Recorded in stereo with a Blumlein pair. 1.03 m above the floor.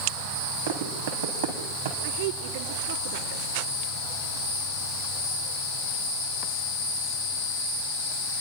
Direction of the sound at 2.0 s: 55° right.